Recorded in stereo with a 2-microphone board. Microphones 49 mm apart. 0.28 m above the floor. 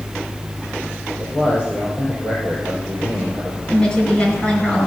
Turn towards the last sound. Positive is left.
turn(degrees=20)  # may be behind; listen again after turning